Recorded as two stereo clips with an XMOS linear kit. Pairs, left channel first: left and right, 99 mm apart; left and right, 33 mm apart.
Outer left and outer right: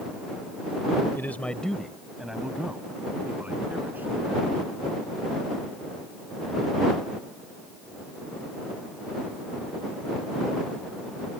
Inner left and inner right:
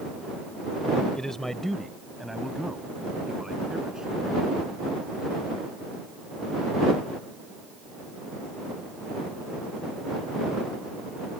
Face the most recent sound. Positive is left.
turn(degrees=-20)  # may be behind; listen again after turning